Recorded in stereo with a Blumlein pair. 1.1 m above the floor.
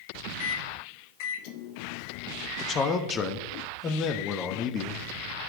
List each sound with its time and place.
0.4 s a microwave: 45° left, 0.6 m
2.6 s a man speaking: 25° left, 1.0 m